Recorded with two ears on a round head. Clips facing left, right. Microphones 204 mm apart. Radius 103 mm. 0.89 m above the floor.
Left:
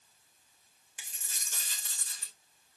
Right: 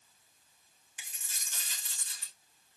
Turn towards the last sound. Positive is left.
turn(degrees=35)  # may be behind; listen again after turning